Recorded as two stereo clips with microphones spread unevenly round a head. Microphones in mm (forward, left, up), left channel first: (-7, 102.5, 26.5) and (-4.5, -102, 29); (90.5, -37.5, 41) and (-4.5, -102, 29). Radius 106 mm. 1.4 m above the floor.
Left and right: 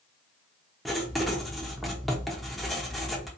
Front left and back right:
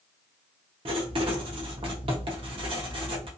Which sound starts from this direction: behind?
Writing, at 0.8 s.